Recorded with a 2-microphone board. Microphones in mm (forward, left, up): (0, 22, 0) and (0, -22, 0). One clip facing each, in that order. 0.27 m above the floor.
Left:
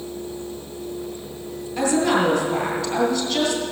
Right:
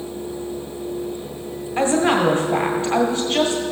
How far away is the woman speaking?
About 1.7 m.